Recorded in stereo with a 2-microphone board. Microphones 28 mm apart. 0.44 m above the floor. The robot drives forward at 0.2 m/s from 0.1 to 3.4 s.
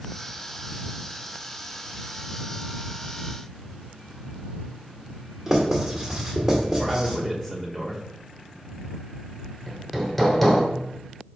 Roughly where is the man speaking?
Centre.